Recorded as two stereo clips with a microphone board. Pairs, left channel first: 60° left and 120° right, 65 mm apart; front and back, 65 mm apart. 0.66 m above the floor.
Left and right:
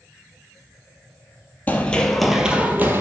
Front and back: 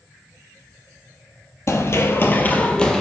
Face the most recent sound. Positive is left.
turn(degrees=-80)